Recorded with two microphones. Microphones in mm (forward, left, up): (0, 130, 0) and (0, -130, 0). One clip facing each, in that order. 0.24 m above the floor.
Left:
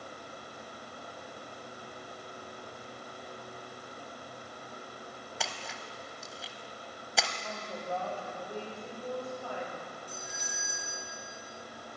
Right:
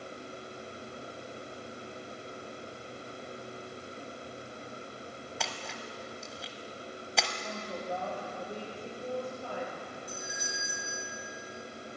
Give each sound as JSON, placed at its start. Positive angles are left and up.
{"t": 5.4, "sound": "a splash", "side_deg": 0, "distance_m": 0.9}
{"t": 7.4, "sound": "a woman speaking", "side_deg": -15, "distance_m": 5.0}
{"t": 10.1, "sound": "a doorbell", "side_deg": -10, "distance_m": 4.5}